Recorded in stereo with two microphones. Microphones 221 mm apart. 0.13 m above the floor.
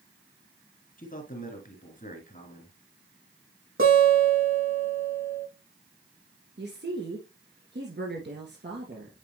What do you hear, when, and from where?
1.0 s a man speaking: 40° left (ahead or behind), 2 m
3.8 s a guitar: 65° right (ahead or behind), 4 m
6.6 s a woman speaking: 55° right (ahead or behind), 1.9 m